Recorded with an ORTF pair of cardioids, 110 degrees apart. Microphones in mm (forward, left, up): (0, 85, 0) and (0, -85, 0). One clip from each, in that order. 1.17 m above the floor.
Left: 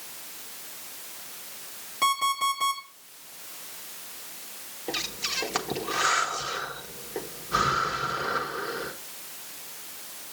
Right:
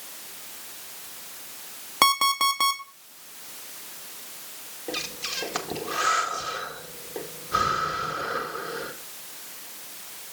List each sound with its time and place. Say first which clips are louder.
2.0 s an alarm clock: right 4 dB; 65° right, 1.5 m
4.9 s breathing: left 1 dB; 10° left, 1.2 m